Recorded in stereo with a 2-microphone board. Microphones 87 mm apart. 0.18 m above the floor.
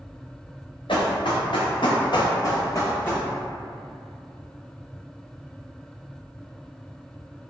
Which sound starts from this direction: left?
Running footsteps, at 0.9 s.